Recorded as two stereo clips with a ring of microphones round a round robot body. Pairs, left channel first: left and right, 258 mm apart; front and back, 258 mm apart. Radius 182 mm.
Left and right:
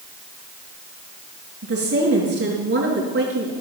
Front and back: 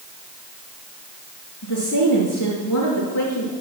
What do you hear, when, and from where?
1.6 s a woman speaking: 45° right, 4 m